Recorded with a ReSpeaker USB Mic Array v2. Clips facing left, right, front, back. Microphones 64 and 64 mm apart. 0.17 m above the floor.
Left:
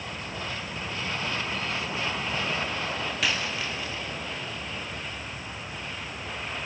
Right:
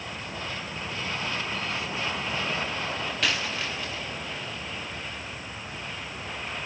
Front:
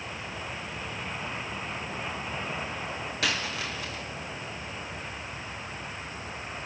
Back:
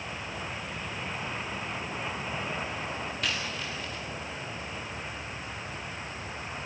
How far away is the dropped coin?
About 4.5 m.